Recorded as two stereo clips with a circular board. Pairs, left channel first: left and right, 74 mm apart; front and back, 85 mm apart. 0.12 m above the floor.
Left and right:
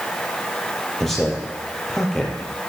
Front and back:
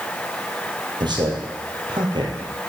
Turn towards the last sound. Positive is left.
turn(degrees=175)